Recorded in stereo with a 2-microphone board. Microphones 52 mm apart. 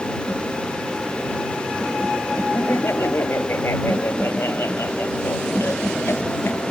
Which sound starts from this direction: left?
Laughter, at 2.5 s.